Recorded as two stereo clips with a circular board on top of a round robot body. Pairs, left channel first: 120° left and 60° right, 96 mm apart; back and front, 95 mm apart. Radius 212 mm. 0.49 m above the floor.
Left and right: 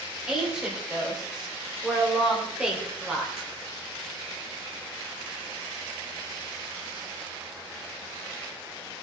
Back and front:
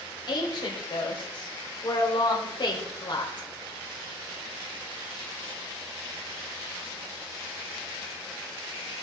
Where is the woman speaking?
145° right, 3.5 m.